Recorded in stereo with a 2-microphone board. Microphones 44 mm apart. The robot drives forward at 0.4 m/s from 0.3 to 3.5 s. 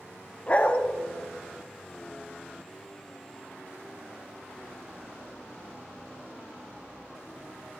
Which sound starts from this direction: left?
A dog barking, at 0.5 s.